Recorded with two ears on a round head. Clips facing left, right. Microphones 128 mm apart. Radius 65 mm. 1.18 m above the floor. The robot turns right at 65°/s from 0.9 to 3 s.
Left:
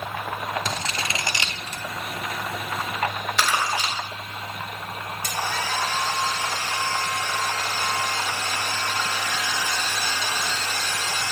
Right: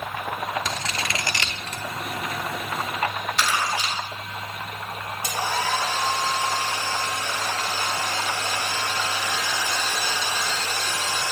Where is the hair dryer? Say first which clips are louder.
Right 3 dB; 15° right (ahead or behind), 3.5 m.